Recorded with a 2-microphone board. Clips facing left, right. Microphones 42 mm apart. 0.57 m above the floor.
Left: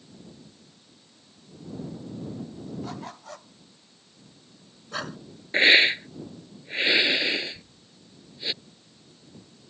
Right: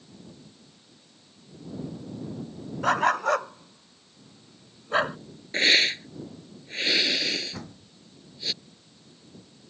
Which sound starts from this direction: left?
A hiss, at 5.5 s.